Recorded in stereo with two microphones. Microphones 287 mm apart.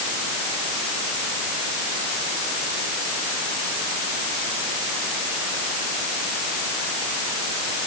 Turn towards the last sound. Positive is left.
No sound to turn to.